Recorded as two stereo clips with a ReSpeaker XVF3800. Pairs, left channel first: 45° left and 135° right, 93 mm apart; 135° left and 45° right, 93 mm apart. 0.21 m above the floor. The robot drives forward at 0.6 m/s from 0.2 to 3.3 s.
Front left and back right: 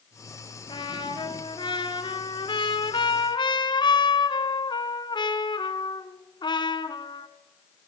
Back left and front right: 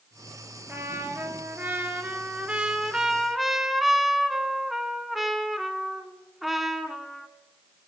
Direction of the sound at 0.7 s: 15° left.